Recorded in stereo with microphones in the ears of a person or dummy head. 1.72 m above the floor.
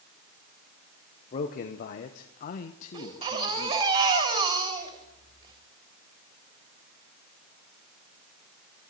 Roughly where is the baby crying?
Right.